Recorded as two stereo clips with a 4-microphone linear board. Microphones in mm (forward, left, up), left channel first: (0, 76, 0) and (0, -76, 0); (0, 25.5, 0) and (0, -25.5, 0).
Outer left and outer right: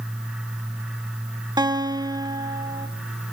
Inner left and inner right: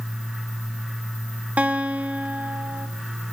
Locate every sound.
1.6 s a guitar: 30° right (ahead or behind), 1.8 m